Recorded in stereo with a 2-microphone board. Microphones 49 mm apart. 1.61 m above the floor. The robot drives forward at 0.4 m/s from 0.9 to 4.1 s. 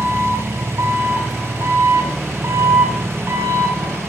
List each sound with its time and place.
0.0 s an engine running: 75° right (ahead or behind), 9 m; by 4.1 s 70° right (ahead or behind), 9 m